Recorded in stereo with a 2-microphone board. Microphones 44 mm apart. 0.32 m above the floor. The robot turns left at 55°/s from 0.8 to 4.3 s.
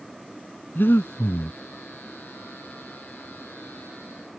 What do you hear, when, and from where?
0.8 s breathing: 125° left; by 1.6 s 80° left